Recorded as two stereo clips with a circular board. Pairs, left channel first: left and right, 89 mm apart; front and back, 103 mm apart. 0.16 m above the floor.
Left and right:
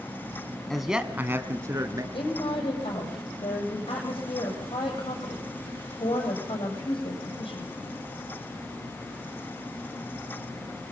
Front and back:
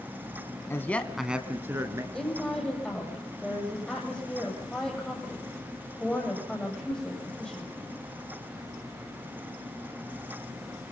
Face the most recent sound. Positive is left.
turn(degrees=85)